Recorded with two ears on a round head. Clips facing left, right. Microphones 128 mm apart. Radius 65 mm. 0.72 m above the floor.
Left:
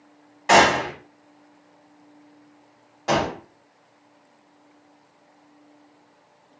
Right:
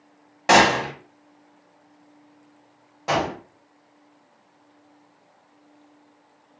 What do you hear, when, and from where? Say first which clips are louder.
0.5 s a gunshot: even; 60° right (ahead or behind), 1.1 m
3.1 s a gunshot: left 1 dB; 5° right (ahead or behind), 1.7 m